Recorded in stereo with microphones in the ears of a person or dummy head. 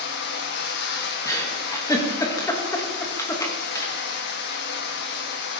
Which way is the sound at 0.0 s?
55° left (ahead or behind).